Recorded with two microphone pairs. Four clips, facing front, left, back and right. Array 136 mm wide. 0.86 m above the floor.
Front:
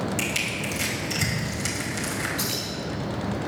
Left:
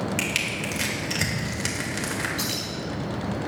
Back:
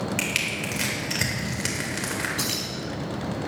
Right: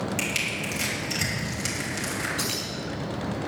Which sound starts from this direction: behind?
Keys jangling, at 2.4 s.